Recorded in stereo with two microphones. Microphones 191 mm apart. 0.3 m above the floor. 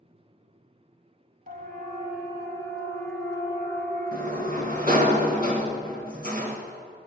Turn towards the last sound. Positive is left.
turn(degrees=-45)  # may be behind; listen again after turning